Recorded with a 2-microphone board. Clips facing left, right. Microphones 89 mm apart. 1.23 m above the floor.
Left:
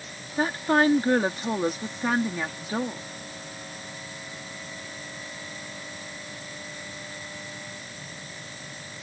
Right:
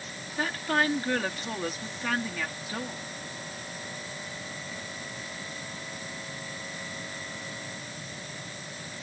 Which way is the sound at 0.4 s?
25° left (ahead or behind).